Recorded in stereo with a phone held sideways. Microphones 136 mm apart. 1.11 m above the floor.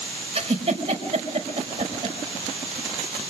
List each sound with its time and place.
0.3 s a giggle: 50° right (ahead or behind), 5 m